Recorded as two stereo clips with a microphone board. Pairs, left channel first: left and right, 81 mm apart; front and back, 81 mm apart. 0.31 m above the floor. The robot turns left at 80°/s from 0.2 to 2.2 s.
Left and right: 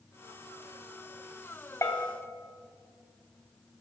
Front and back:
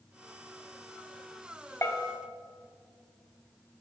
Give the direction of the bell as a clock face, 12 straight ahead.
10 o'clock.